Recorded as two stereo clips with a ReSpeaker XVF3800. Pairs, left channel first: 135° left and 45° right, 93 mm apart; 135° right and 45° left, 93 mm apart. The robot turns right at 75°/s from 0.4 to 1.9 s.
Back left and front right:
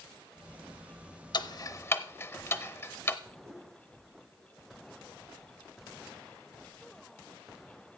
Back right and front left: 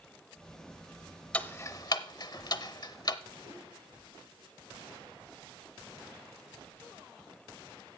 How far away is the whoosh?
About 6.5 m.